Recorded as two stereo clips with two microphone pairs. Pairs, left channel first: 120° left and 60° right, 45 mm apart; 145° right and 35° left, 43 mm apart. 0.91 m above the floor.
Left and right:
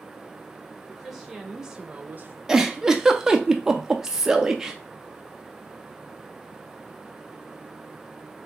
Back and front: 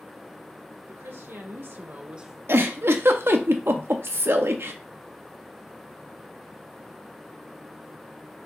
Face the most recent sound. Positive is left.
turn(degrees=20)